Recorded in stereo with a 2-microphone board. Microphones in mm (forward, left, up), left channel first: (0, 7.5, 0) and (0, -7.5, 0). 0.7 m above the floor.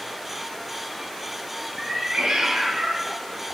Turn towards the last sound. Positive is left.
turn(degrees=-65)  # may be behind; listen again after turning